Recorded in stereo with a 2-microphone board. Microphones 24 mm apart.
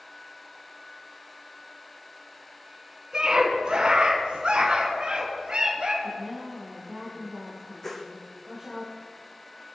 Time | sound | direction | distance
3.1 | a scream | 30° right (ahead or behind) | 1.8 m
6.0 | a woman speaking | 10° right (ahead or behind) | 6.5 m
7.8 | a whoosh | 10° left (ahead or behind) | 1.5 m